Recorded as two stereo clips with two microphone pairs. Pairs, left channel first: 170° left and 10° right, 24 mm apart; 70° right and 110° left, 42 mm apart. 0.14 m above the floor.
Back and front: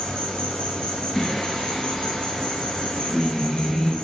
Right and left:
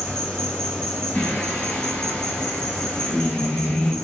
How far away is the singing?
About 1.1 m.